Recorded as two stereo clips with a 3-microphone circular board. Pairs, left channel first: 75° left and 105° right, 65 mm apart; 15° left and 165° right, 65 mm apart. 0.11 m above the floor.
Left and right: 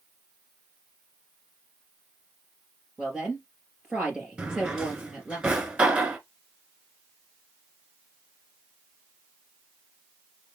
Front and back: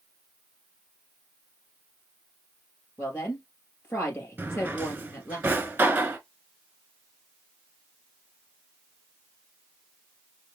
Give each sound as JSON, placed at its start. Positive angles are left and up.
{"t": 3.0, "sound": "a woman speaking", "azimuth_deg": -30, "distance_m": 2.5}
{"t": 4.4, "sound": "a drawer", "azimuth_deg": -160, "distance_m": 0.9}